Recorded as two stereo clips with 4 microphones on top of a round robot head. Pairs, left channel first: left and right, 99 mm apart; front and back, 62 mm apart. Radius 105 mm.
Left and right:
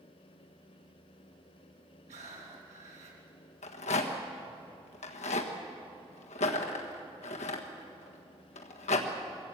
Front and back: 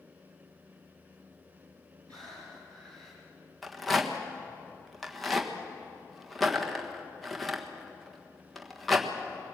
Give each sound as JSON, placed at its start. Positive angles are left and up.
{"t": 2.1, "sound": "breathing", "azimuth_deg": -85, "distance_m": 3.5}
{"t": 3.6, "sound": "a rattle", "azimuth_deg": 85, "distance_m": 1.4}